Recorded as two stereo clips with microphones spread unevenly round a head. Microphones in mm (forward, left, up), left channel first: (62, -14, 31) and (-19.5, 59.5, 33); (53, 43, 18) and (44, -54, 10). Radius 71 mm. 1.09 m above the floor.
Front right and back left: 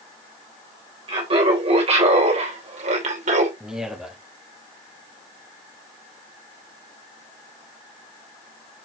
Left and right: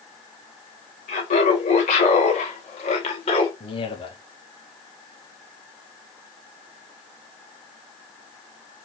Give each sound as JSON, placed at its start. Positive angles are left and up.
{"t": 1.1, "sound": "laughter", "azimuth_deg": 100, "distance_m": 2.5}
{"t": 3.6, "sound": "a man speaking", "azimuth_deg": 55, "distance_m": 2.0}